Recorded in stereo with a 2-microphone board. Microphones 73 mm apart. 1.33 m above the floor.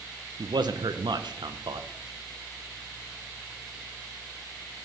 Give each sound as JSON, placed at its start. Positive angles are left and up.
{"t": 0.4, "sound": "a man speaking", "side_deg": -80, "distance_m": 1.1}